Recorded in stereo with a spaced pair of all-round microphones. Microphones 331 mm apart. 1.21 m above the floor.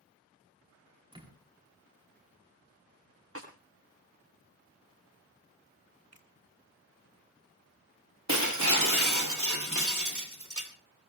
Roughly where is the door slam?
Centre.